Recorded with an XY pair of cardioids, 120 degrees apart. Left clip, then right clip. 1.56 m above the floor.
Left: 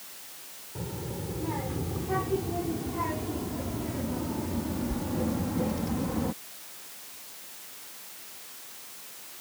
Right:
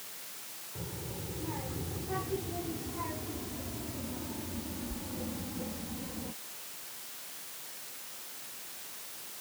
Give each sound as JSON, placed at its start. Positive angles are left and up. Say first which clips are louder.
{"t": 0.8, "sound": "a child speaking", "louder": "left 6 dB", "azimuth_deg": 35}